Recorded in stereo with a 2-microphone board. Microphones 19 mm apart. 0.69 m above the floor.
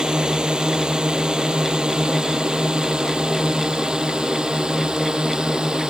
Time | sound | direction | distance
0.0 | a drone | 45° right (ahead or behind) | ?